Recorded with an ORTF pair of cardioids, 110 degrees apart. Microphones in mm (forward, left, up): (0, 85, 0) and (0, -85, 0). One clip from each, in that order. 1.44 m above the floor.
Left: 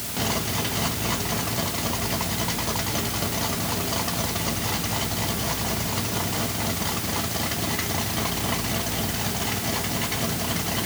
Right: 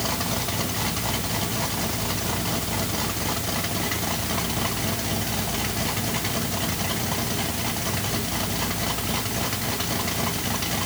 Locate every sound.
Only background noise.